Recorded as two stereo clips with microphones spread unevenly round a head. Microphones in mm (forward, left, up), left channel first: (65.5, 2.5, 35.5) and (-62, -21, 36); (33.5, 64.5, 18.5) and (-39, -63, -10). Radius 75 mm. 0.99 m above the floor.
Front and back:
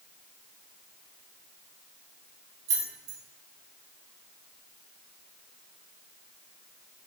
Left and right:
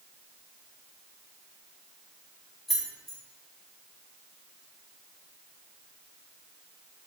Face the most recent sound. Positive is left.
turn(degrees=150)